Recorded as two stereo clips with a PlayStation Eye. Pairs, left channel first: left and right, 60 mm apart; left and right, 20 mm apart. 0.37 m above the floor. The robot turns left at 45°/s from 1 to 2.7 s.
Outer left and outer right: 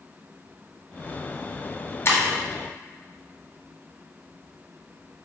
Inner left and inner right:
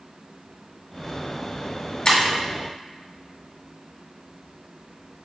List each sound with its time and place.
2.0 s breaking glass: 40° left (ahead or behind), 1.4 m; by 2.2 s 45° left (ahead or behind), 1.4 m